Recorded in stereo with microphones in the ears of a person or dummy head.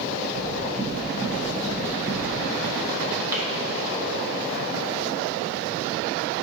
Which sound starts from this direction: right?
Knocking, at 0.3 s.